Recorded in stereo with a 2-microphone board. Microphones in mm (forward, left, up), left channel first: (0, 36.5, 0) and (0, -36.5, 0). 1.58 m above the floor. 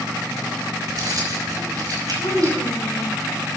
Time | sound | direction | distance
0.9 | keys jangling | 55° right (ahead or behind) | 5.5 m
2.2 | a child speaking | 70° left (ahead or behind) | 3 m